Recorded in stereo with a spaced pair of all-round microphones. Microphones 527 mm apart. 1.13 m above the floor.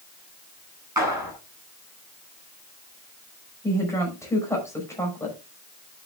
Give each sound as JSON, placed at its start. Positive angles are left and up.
{"t": 1.0, "sound": "a clap", "side_deg": -35, "distance_m": 8.5}
{"t": 3.6, "sound": "a woman speaking", "side_deg": 5, "distance_m": 5.5}